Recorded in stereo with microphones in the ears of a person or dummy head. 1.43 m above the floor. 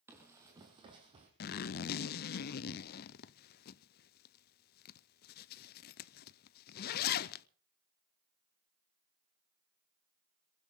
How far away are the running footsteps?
About 1.8 m.